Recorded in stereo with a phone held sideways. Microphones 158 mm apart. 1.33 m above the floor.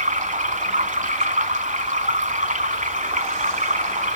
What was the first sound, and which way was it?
Running water, 55° right (ahead or behind).